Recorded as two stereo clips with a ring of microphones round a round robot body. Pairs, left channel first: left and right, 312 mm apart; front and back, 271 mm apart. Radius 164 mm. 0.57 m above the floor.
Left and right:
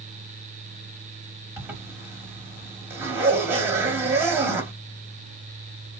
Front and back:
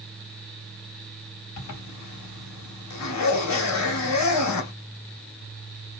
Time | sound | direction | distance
1.6 | a zipper | 10° right | 1.2 m